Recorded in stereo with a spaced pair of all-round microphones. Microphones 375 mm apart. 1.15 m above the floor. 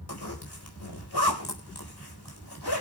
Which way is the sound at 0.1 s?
80° left.